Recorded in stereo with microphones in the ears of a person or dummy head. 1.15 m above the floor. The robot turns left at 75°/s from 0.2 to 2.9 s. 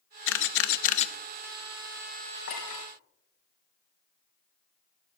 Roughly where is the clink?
Left.